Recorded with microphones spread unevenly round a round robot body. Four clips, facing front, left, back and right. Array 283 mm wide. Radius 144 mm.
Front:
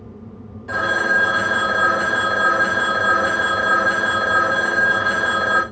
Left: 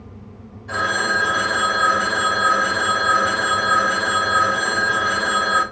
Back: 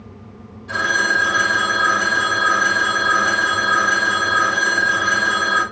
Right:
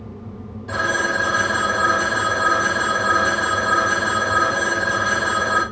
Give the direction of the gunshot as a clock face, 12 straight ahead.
I don't hear a gunshot.